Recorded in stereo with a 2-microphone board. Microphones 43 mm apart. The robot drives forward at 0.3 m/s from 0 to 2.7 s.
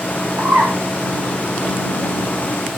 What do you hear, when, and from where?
0.4 s a bird: 60° right (ahead or behind), 7.5 m